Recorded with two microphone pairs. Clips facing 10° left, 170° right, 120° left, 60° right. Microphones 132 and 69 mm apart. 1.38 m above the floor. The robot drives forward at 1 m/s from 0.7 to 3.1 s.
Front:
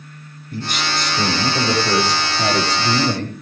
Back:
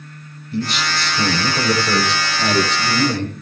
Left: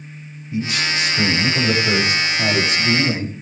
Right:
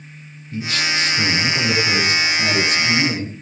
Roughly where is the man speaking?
Ahead left.